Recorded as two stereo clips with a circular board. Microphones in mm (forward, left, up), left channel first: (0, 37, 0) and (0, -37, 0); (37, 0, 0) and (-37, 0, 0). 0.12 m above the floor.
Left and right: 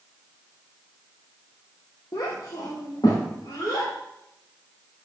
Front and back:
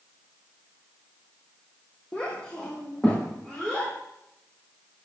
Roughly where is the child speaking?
Left.